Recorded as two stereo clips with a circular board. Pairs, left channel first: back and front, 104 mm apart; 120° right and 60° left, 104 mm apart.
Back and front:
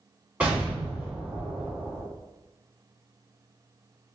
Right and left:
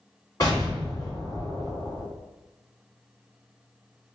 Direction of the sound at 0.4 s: 70° right.